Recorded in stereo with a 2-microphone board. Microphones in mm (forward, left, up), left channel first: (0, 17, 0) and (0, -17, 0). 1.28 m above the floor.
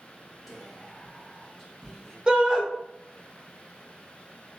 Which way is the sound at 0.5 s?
Centre (ahead or behind).